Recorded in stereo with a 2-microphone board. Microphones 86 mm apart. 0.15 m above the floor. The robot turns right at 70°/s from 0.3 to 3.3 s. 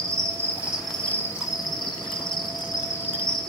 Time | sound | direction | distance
0.0 | an insect | 40° right | 0.8 m